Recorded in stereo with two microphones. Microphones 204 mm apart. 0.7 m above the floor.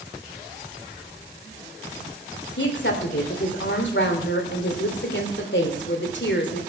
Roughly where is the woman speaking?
Left.